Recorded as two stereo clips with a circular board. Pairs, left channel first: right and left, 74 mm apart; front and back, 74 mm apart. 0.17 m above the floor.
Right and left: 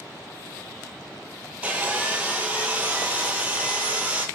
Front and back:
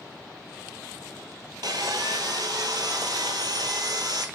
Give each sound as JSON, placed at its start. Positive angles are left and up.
{"t": 1.6, "sound": "sawing", "azimuth_deg": 160, "distance_m": 0.6}